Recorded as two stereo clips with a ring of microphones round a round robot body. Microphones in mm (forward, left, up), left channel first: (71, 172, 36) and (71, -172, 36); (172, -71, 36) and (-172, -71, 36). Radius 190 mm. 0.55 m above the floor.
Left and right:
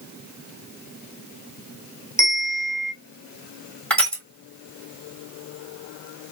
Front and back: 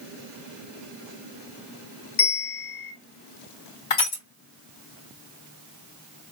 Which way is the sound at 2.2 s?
10° left.